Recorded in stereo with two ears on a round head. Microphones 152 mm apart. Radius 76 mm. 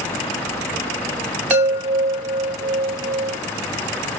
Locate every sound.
1.5 s a chime: 10° right (ahead or behind), 0.9 m